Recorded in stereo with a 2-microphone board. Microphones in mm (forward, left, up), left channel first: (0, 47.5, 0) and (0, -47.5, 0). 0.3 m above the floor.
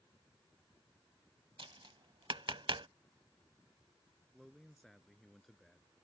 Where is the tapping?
65° right (ahead or behind).